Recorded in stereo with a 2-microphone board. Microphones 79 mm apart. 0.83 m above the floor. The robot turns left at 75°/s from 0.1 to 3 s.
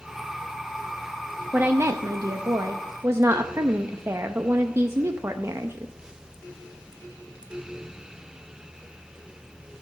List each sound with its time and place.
1.5 s a woman speaking: 25° right, 0.6 m; by 5.9 s 135° right, 0.6 m